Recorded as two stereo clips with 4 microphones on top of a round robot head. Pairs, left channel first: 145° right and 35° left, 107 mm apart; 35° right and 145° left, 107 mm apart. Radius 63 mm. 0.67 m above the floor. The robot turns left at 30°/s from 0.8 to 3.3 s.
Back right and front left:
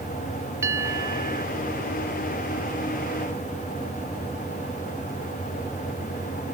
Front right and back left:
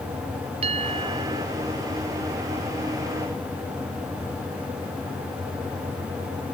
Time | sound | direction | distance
0.6 | a bell | 105° left | ?